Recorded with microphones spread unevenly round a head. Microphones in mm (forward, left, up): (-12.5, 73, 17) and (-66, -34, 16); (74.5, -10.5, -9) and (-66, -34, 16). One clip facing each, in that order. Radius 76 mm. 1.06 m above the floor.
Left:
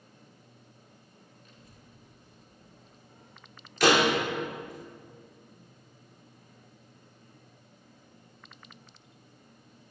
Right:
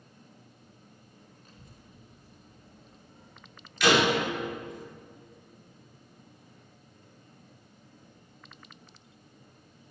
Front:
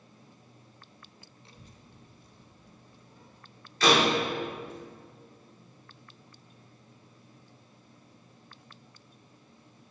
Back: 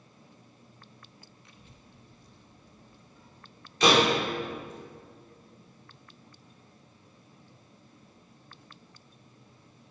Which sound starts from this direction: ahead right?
A child speaking, at 1.4 s.